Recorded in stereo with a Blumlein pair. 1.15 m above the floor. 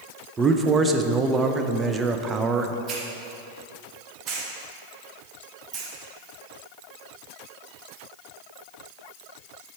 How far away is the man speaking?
About 0.6 m.